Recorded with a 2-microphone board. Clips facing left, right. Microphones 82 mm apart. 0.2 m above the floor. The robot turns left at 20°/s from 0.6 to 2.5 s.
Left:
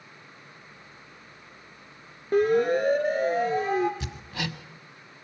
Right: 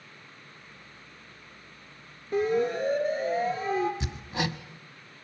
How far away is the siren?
About 2.5 m.